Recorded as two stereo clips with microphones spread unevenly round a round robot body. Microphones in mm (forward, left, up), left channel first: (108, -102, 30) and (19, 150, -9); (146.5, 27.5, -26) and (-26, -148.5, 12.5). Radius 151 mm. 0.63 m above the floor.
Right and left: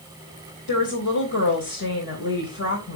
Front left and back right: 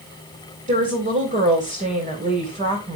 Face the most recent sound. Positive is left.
turn(degrees=-75)